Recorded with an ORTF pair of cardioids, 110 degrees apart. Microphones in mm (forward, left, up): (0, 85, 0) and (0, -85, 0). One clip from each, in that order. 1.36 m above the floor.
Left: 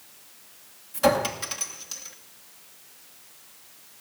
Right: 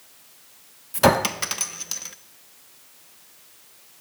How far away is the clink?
About 0.8 m.